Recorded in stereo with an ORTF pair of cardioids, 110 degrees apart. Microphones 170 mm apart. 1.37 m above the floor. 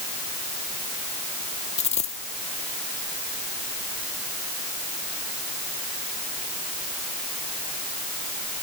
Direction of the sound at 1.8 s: 40° left.